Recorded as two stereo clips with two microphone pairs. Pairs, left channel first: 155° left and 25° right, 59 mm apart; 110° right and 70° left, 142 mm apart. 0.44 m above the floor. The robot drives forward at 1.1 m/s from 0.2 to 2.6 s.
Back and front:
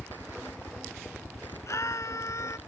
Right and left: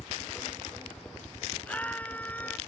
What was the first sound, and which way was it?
A helicopter, 175° left.